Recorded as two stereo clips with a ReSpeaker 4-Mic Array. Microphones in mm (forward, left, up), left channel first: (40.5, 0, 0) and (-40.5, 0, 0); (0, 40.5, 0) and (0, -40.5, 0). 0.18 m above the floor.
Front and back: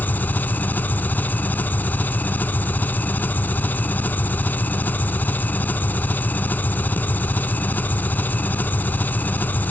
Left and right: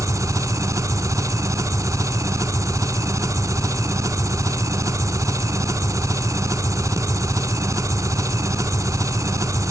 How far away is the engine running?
About 0.8 m.